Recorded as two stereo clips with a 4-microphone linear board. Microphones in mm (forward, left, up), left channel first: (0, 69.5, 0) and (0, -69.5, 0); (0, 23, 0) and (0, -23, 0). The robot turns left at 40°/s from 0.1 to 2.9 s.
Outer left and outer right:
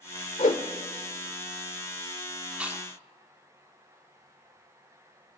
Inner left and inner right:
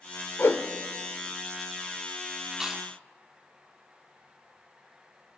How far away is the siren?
No siren in this recording.